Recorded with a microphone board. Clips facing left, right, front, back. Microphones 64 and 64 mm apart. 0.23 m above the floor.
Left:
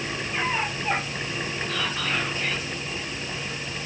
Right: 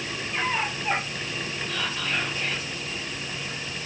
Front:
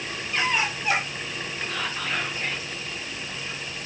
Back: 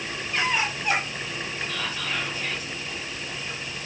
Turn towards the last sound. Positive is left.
turn(degrees=50)